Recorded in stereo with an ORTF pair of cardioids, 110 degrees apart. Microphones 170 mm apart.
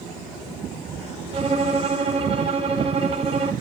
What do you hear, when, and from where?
1.3 s a violin: 35° right, 2.5 m